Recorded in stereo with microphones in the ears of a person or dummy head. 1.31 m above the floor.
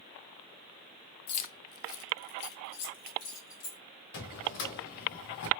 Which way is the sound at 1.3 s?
35° left (ahead or behind).